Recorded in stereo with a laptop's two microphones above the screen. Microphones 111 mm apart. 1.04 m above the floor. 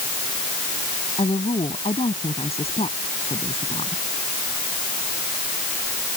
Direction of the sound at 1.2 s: 70° left (ahead or behind).